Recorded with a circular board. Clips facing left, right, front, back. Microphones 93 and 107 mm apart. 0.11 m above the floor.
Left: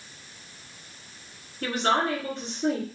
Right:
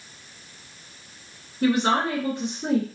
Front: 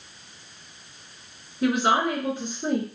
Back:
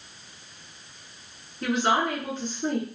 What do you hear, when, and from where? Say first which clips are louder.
1.6 s a woman speaking: right 4 dB, front 2 dB; 60° right, 1.1 m